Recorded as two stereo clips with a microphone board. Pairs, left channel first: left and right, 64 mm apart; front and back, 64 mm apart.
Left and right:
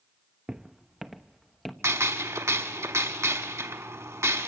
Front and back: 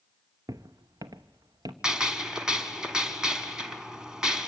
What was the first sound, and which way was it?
Footsteps, 165° right.